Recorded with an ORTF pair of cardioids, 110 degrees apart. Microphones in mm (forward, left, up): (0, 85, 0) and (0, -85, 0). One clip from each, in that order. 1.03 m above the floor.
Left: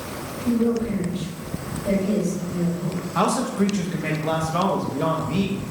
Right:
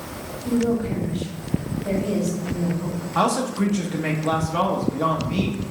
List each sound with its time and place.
0.5 s a woman speaking: 15° right, 2 m
3.1 s a man speaking: 5° right, 0.8 m